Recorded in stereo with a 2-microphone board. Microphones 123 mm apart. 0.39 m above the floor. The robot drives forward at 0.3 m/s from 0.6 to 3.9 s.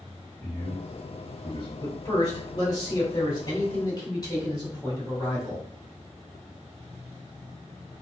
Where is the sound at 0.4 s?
40° left (ahead or behind), 1.8 m.